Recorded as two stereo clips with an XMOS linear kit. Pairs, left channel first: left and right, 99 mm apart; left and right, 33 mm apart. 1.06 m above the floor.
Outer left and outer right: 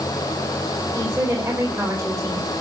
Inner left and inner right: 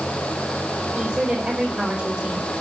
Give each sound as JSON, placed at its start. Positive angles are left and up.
{"t": 0.9, "sound": "a woman speaking", "side_deg": -20, "distance_m": 4.0}